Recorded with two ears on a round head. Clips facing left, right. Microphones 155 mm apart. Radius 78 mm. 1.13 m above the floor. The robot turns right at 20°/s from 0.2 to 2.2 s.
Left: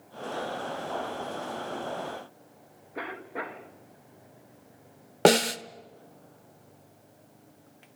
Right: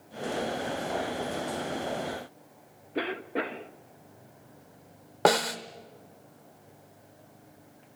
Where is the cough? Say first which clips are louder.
Right 6 dB; 35° right (ahead or behind), 1.4 m.